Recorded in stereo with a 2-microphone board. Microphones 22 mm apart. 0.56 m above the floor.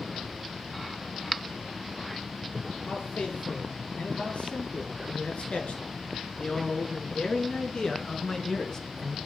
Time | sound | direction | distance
2.9 | a man speaking | 85° left | 9 m